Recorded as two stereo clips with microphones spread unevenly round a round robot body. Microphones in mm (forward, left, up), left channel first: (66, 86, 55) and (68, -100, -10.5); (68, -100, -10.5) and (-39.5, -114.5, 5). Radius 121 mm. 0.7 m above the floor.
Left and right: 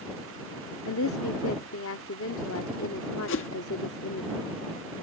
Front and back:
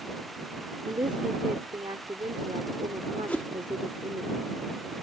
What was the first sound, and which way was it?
A woman speaking, 120° left.